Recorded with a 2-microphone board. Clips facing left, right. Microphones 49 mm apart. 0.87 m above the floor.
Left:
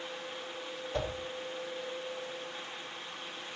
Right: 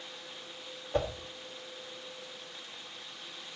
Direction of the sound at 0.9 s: 20° right (ahead or behind).